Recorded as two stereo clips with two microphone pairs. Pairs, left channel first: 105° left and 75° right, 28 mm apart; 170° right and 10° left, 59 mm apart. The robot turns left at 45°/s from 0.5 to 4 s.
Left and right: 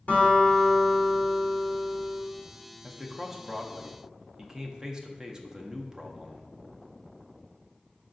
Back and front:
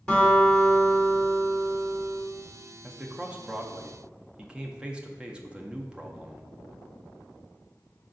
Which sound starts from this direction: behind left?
A guitar, at 0.1 s.